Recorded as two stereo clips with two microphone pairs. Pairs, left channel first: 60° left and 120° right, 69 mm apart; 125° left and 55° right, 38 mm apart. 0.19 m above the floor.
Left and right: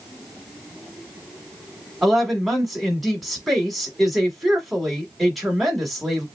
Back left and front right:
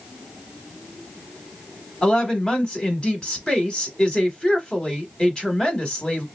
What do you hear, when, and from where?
2.0 s a woman speaking: 150° left, 1.1 m